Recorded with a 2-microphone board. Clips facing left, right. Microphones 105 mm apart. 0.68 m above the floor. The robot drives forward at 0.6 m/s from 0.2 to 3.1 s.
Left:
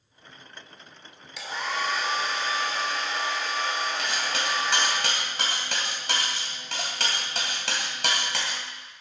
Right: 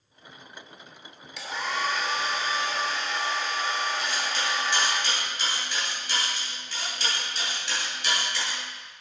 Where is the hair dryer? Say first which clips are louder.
Even; centre (ahead or behind), 1.9 m.